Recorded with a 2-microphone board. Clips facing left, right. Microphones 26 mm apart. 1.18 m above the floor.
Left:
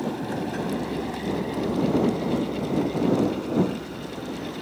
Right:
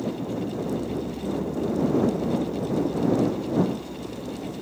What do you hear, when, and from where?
0.0 s a vehicle: 80° left; by 4.6 s 55° left (ahead or behind)